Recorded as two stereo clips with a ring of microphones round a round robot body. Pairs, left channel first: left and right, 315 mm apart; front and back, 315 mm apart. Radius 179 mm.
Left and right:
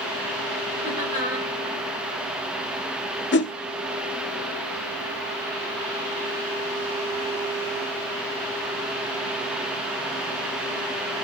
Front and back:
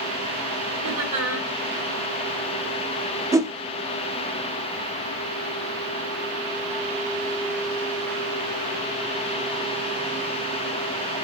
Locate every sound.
0.8 s laughter: 165° right, 2.5 m
3.3 s a whoosh: 105° left, 0.5 m